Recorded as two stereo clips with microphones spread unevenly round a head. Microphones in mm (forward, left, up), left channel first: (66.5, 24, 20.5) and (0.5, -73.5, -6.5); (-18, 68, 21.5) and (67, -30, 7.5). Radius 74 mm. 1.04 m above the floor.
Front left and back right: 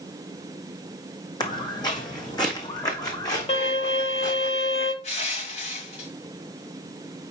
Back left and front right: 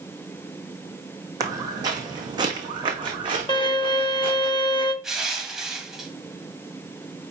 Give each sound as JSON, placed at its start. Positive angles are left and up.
{"t": 1.4, "sound": "footsteps", "azimuth_deg": 15, "distance_m": 2.5}
{"t": 3.5, "sound": "a violin", "azimuth_deg": 80, "distance_m": 1.2}
{"t": 5.0, "sound": "crushing", "azimuth_deg": 40, "distance_m": 1.9}